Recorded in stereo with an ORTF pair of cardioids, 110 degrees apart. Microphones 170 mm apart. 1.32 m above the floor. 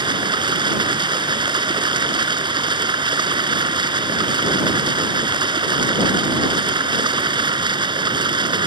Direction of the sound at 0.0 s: 25° right.